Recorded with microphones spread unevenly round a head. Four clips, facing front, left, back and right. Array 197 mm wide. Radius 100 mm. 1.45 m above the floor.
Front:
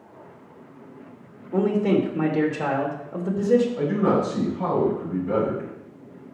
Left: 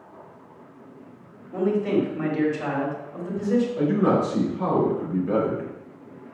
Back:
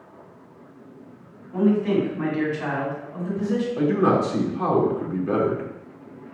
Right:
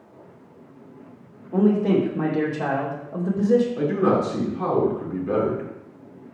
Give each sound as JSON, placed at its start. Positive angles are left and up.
{"t": 1.5, "sound": "a man speaking", "azimuth_deg": -50, "distance_m": 2.5}
{"t": 3.8, "sound": "a man speaking", "azimuth_deg": -165, "distance_m": 4.0}